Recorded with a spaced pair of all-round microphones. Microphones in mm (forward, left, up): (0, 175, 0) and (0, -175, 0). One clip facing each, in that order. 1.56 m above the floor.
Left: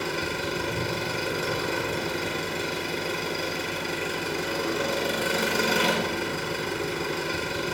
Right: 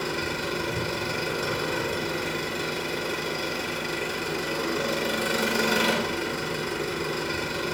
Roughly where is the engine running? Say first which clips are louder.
Even; centre.